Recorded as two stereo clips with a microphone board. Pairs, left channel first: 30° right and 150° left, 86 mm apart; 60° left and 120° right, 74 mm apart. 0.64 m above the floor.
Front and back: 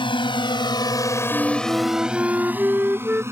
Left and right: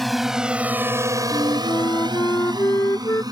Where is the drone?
30° right; by 3.3 s 150° right.